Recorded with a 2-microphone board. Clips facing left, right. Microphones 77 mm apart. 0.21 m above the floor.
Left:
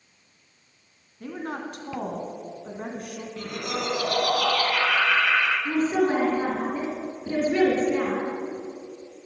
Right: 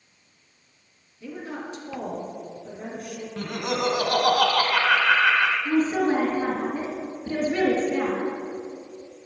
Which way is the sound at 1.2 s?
50° left (ahead or behind).